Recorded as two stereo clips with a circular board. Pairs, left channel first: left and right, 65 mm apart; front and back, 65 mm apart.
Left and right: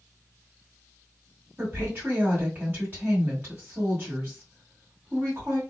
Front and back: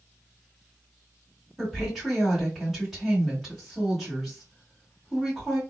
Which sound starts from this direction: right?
A woman speaking, at 1.6 s.